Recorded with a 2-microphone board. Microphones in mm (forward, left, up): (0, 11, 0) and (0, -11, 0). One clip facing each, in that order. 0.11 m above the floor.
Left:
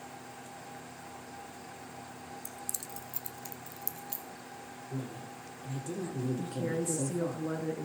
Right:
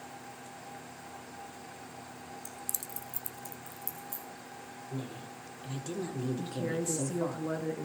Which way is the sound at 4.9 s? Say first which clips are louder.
Even; 45° right (ahead or behind).